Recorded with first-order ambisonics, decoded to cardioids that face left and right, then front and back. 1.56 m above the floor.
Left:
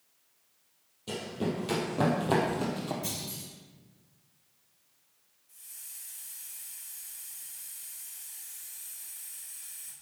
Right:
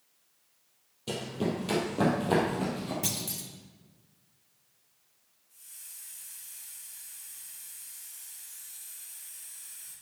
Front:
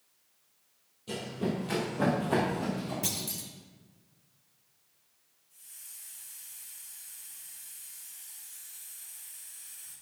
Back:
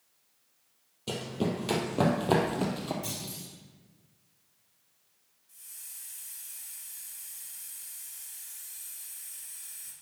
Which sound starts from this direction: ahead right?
A clunk, at 3.0 s.